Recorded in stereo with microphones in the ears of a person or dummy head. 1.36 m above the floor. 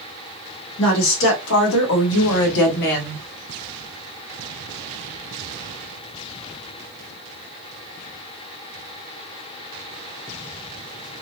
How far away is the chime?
I don't hear a chime.